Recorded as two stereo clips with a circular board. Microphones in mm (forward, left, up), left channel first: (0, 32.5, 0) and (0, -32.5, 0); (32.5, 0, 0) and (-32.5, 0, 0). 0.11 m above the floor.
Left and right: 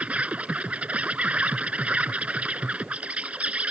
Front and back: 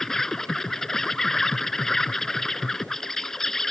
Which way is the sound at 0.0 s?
70° right.